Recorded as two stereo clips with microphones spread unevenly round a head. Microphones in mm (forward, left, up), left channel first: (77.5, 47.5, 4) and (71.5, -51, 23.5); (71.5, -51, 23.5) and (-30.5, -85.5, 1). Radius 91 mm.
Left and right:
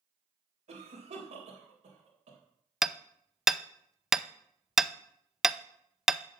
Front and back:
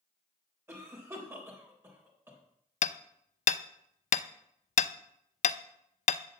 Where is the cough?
95° right, 3.5 m.